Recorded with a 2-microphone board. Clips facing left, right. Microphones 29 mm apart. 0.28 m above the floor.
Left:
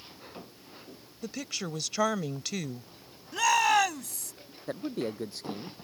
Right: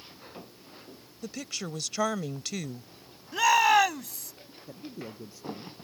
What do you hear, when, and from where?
1.2 s a woman speaking: 5° left (ahead or behind)
3.3 s a shout: 10° right (ahead or behind)
4.7 s a man speaking: 80° left